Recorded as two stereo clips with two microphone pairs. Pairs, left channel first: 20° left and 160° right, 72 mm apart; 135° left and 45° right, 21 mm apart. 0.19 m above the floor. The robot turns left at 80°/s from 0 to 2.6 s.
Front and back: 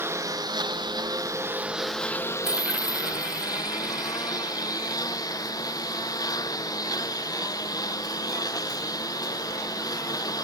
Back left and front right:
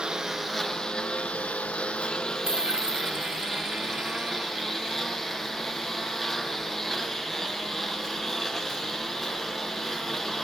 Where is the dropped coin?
75° right; by 5.0 s 90° right.